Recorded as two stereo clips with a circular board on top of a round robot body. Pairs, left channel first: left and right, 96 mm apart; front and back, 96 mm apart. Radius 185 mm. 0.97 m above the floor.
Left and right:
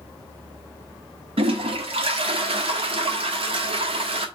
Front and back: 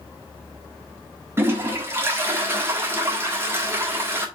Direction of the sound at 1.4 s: 115° right.